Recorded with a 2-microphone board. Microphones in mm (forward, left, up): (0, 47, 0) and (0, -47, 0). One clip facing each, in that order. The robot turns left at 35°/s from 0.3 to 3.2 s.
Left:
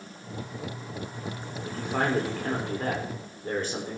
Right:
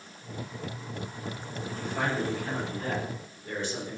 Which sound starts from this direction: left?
A man speaking, at 1.6 s.